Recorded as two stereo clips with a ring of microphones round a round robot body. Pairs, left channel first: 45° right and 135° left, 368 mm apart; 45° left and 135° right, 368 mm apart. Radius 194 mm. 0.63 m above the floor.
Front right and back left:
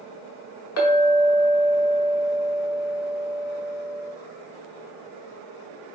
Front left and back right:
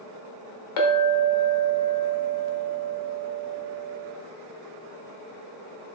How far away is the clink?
About 0.7 m.